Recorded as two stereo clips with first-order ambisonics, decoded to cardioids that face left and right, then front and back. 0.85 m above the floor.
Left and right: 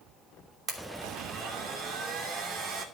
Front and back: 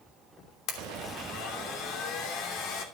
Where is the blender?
35° right, 2.5 m.